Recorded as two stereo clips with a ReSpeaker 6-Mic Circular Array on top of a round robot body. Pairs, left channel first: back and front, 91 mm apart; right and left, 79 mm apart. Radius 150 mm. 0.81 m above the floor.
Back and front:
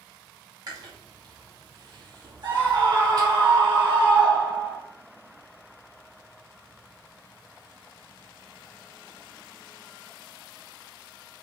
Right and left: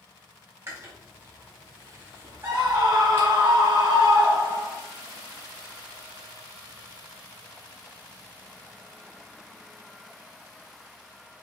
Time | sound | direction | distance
0.7 | chewing | 35° left | 3 m
2.4 | a scream | 30° left | 5 m